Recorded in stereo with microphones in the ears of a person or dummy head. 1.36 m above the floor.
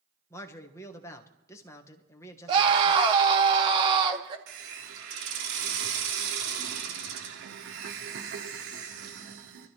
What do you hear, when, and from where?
0.3 s a man speaking: 15° left (ahead or behind), 1.4 m
2.5 s a scream: 30° right (ahead or behind), 1.8 m
4.5 s a hiss: 70° right (ahead or behind), 1.7 m